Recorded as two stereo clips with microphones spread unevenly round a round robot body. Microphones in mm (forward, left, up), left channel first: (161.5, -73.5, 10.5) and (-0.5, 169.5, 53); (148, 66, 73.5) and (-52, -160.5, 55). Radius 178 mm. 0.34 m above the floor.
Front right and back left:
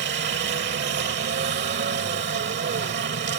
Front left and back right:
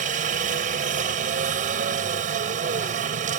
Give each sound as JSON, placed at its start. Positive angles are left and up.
{"t": 0.0, "sound": "a helicopter", "azimuth_deg": 175}